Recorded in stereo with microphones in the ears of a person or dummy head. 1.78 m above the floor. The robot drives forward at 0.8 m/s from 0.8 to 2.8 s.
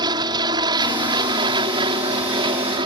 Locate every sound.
0.0 s an aircraft: 25° right (ahead or behind); by 2.9 s 30° right (ahead or behind)